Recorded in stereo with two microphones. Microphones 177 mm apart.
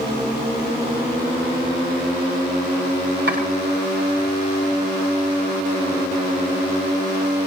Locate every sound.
3.3 s chopping: 80° right, 7 m